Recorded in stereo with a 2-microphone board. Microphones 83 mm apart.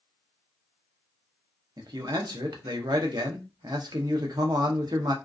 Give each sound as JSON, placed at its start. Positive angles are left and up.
{"t": 1.8, "sound": "a man speaking", "side_deg": -60, "distance_m": 0.6}